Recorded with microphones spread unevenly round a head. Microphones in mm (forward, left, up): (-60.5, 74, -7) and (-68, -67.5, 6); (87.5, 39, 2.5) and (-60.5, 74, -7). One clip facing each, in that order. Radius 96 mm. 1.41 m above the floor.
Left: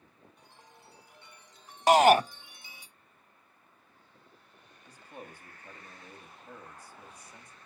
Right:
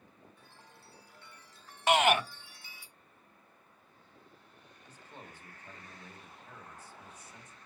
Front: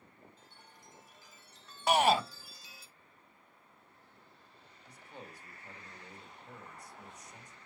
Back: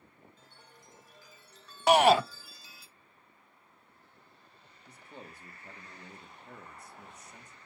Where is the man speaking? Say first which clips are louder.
Left 5 dB, back 1 dB; 165° left, 2.5 m.